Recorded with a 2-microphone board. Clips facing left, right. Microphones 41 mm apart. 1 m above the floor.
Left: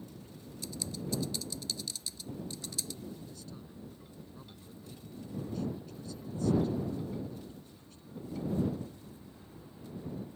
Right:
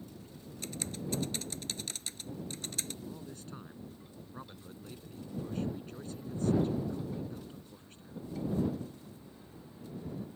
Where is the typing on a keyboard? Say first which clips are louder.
Even; 50° right (ahead or behind).